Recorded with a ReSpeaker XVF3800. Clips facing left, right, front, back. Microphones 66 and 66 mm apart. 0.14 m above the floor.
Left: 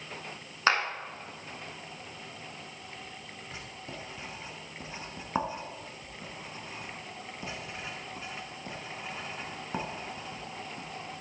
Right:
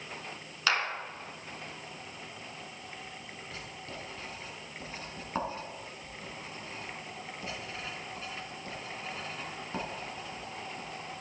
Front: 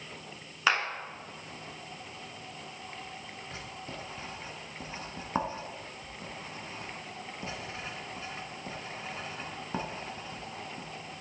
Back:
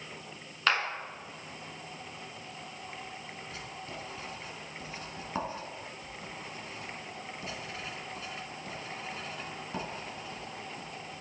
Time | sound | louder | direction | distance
0.7 | a clap | left 4 dB, front 1 dB | 75° left | 1.1 m
3.5 | writing | left 1 dB, front 1 dB | 35° left | 0.9 m